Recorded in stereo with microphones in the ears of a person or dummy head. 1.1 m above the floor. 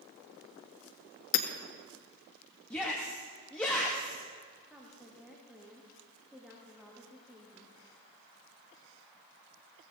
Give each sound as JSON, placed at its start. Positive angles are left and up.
{"t": 1.3, "sound": "hammering", "side_deg": 65, "distance_m": 1.3}
{"t": 2.7, "sound": "a shout", "side_deg": 10, "distance_m": 1.2}
{"t": 4.7, "sound": "a woman speaking", "side_deg": 0, "distance_m": 1.7}